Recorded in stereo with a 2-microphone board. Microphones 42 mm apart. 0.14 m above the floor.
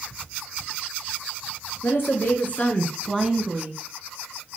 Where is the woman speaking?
60° left (ahead or behind), 2.5 m; by 3.8 s 30° right (ahead or behind), 1.5 m.